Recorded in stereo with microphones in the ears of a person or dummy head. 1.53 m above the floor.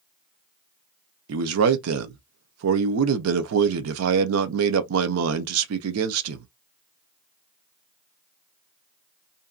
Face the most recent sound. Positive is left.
turn(degrees=-85)